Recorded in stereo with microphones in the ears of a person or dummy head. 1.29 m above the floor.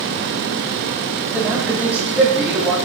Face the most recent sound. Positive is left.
turn(degrees=0)  # may be behind; listen again after turning